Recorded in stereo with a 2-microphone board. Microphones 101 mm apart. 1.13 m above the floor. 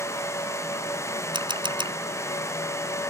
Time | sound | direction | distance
1.3 | a camera shutter | 50° right (ahead or behind) | ?